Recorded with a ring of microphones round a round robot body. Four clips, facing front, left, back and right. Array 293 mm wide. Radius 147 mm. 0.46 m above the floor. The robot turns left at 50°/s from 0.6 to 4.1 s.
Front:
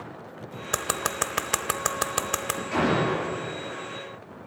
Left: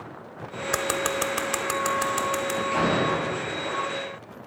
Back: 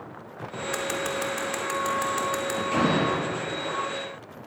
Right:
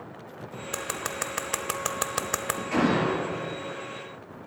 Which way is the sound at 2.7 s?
135° right.